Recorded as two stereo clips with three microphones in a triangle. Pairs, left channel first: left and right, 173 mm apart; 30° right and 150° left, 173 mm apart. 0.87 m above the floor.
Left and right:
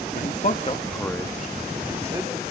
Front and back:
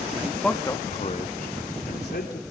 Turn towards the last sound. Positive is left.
turn(degrees=-20)